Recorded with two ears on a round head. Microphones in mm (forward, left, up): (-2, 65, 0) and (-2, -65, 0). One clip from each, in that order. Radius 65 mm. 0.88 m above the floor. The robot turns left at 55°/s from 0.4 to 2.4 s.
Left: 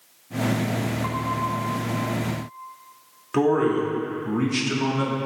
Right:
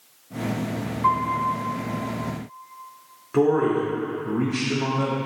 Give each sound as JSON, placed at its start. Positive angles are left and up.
{"t": 1.0, "sound": "a piano", "azimuth_deg": -100, "distance_m": 1.4}
{"t": 3.3, "sound": "a man speaking", "side_deg": 70, "distance_m": 1.6}